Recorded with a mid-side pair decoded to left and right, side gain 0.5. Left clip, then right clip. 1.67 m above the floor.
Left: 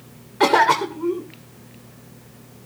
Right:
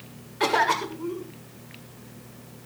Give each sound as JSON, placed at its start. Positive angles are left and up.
{"t": 0.4, "sound": "a cough", "azimuth_deg": 65, "distance_m": 1.5}